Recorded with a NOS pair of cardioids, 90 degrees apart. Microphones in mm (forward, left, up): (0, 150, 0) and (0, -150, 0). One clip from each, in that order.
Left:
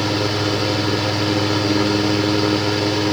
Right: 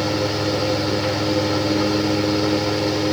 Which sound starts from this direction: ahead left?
A fan, at 0.0 s.